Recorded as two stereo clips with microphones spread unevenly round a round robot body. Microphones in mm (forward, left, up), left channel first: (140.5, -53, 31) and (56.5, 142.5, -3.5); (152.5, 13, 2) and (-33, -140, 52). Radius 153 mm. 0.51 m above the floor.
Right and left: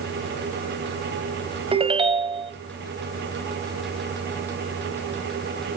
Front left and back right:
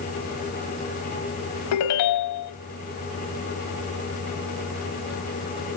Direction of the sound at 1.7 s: 45° left.